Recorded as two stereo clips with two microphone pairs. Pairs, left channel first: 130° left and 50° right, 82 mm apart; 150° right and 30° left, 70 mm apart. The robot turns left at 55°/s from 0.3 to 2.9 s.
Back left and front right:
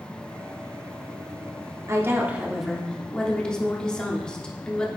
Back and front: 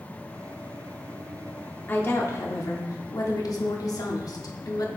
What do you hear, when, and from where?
1.9 s a woman speaking: 95° right, 1.1 m; by 4.9 s 150° right, 1.1 m